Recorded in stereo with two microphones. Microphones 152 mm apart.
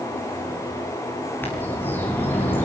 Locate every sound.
1.4 s a bird: 15° left (ahead or behind), 6.5 m